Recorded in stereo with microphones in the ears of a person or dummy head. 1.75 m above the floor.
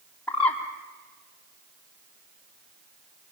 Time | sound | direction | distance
0.3 | a bird | centre (ahead or behind) | 3.5 m